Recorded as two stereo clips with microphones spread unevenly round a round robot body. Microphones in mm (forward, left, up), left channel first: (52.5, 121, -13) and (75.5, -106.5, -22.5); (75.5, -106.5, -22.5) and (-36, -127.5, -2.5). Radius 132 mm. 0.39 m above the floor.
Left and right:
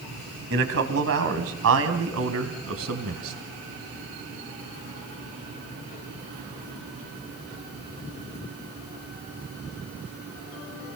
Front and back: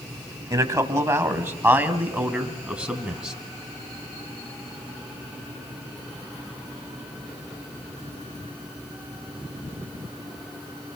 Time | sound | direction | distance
0.5 | a man speaking | 115° right | 3 m